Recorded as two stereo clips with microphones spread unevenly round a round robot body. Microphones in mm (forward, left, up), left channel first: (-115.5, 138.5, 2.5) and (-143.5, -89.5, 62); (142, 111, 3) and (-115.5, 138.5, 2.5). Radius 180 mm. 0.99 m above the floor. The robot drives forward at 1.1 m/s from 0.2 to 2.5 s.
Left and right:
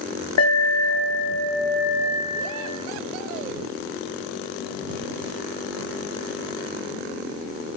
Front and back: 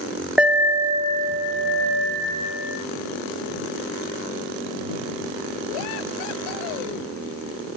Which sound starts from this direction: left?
An alarm, at 0.4 s.